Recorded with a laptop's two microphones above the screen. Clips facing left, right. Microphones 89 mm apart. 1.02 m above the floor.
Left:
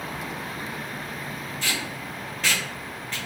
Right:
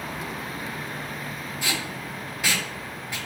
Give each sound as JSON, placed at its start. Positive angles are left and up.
{"t": 1.6, "sound": "tape being pulled", "side_deg": -10, "distance_m": 1.1}